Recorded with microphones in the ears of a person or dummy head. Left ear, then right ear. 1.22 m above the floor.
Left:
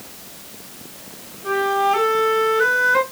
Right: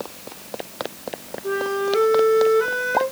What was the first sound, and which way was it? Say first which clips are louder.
A flute: left 5 dB; 45° left (ahead or behind).